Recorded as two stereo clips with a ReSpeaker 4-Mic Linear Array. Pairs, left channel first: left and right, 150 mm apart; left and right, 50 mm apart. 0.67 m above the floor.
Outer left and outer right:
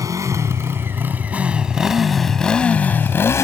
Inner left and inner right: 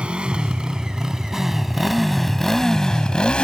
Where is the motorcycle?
20° right (ahead or behind); by 3.4 s 20° left (ahead or behind).